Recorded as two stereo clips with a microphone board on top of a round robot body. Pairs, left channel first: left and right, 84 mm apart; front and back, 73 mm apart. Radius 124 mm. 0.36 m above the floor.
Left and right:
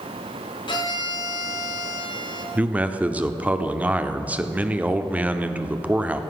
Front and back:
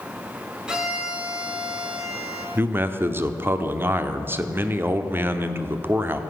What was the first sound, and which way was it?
A violin, 100° left.